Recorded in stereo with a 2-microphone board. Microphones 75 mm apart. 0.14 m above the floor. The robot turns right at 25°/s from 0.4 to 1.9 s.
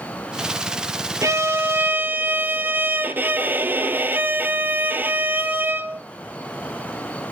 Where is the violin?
40° right (ahead or behind), 0.9 m; by 6.0 s 25° right (ahead or behind), 0.9 m.